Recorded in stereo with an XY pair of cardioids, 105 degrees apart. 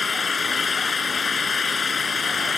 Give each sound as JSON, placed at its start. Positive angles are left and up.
{"t": 0.0, "sound": "an engine running", "azimuth_deg": 35}